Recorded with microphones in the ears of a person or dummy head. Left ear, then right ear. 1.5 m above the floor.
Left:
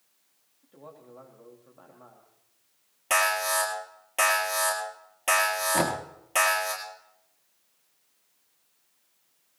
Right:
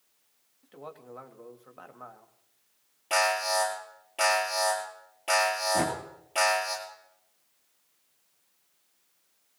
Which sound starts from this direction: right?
A man speaking, at 0.6 s.